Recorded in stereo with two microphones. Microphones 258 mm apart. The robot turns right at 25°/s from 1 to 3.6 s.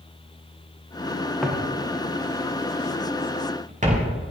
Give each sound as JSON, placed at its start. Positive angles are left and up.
{"t": 1.4, "sound": "footsteps", "side_deg": 0, "distance_m": 4.0}